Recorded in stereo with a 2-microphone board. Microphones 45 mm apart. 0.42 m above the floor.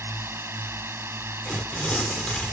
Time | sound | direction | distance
0.0 | a drone | 70° right (ahead or behind) | ?
1.4 | tearing paper | 20° left (ahead or behind) | ?